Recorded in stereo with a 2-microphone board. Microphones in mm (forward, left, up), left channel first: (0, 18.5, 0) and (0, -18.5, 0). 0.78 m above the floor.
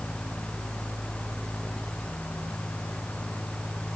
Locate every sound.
Only background noise.